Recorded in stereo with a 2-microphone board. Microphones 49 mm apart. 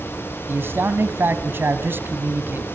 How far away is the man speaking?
About 2.0 m.